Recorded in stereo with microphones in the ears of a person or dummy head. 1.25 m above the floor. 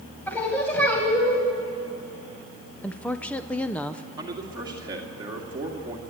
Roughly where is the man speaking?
Right.